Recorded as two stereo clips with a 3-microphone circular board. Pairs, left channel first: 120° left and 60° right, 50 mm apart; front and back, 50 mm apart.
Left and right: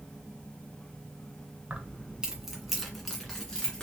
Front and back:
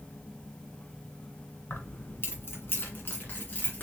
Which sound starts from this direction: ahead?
Keys jangling, at 1.7 s.